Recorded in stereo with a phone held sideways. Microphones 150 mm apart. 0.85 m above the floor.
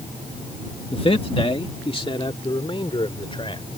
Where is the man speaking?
35° left (ahead or behind).